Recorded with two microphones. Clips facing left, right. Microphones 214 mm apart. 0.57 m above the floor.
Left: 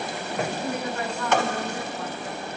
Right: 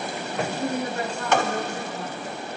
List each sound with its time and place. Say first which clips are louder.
0.6 s a woman speaking: right 2 dB; 30° right (ahead or behind), 0.8 m